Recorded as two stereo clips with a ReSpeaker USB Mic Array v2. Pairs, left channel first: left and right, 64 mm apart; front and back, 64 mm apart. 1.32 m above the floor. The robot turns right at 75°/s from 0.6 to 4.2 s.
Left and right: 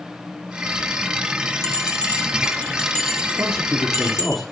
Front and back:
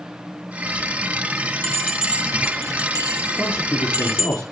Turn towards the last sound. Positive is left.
turn(degrees=0)